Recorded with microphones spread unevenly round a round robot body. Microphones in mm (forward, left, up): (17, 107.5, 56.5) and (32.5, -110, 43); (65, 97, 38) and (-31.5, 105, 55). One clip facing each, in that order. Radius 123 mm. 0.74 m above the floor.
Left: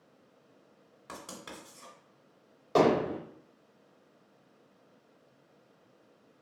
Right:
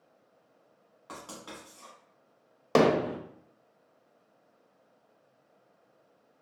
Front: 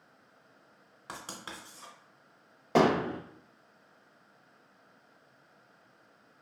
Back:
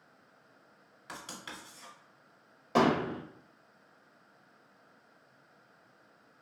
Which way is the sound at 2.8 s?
80° right.